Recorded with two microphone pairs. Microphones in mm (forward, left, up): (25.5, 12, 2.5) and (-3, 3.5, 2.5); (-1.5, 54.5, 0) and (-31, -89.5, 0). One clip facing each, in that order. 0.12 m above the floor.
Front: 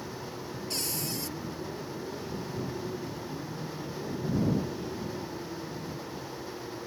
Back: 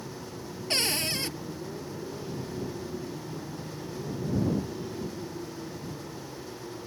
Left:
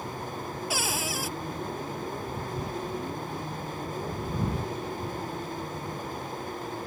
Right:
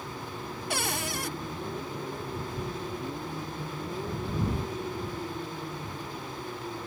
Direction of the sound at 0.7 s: 165° left.